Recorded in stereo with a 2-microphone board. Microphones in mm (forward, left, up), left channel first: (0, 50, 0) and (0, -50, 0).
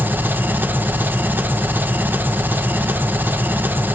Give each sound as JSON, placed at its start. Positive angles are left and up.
{"t": 0.0, "sound": "an engine running", "side_deg": -20, "distance_m": 1.3}